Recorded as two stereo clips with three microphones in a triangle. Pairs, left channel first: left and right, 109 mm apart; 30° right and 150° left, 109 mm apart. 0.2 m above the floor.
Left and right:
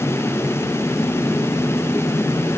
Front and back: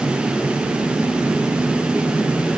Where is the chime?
No chime in this recording.